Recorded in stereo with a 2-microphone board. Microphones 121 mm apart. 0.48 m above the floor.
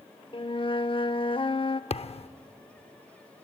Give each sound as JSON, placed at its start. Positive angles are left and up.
{"t": 0.3, "sound": "a flute", "side_deg": 45, "distance_m": 0.6}
{"t": 1.9, "sound": "a thud", "side_deg": 55, "distance_m": 0.5}